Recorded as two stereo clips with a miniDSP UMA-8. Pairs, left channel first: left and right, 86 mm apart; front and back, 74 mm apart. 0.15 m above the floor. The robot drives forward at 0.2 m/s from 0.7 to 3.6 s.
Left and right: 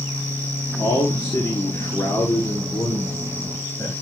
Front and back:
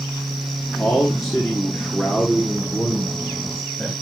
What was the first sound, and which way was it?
A man speaking, 80° left.